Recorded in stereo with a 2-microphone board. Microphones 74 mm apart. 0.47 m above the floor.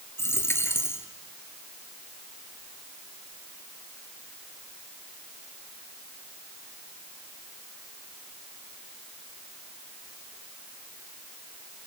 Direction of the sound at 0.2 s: 35° left (ahead or behind).